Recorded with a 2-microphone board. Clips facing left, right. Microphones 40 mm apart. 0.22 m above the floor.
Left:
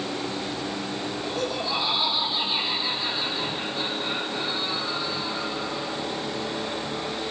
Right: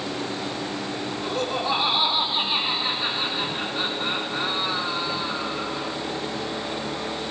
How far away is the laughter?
About 7.5 m.